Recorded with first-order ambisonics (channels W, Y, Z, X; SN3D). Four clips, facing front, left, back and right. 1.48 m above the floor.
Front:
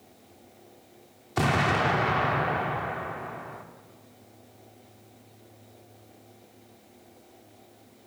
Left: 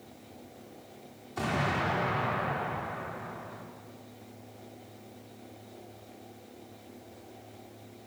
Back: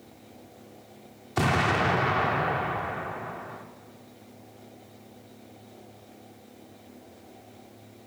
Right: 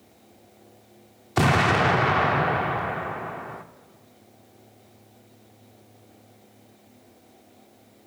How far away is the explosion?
About 0.6 m.